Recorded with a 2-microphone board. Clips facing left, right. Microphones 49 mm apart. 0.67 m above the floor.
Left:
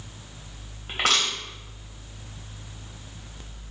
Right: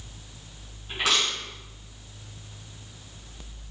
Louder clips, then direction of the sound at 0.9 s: Left 1 dB; 55° left (ahead or behind).